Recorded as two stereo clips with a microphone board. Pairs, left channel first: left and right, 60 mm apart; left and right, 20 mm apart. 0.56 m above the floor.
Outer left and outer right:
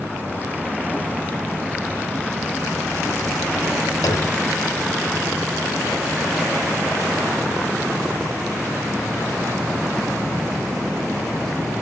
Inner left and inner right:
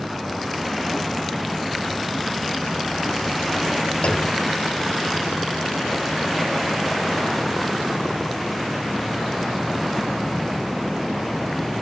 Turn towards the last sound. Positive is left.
turn(degrees=90)